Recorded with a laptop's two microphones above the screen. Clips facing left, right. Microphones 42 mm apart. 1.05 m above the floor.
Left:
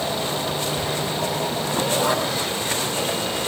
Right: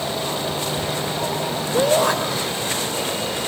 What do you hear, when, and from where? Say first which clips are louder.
1.7 s a shout: right 5 dB; 80° right, 5.5 m